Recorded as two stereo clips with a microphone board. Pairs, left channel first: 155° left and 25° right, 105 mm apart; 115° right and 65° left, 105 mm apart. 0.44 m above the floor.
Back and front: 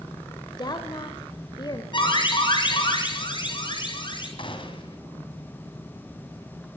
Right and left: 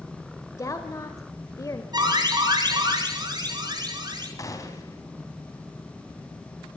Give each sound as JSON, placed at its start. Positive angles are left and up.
{"t": 0.6, "sound": "a woman speaking", "azimuth_deg": -165, "distance_m": 1.4}
{"t": 1.9, "sound": "an alarm", "azimuth_deg": 115, "distance_m": 6.0}
{"t": 4.4, "sound": "a gunshot", "azimuth_deg": -170, "distance_m": 3.5}